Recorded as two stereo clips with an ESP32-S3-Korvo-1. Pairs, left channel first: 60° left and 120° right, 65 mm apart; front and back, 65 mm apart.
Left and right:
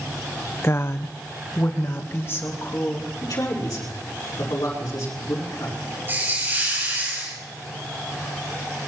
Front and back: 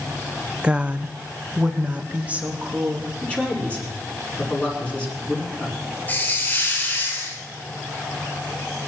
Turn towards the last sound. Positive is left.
turn(degrees=-65)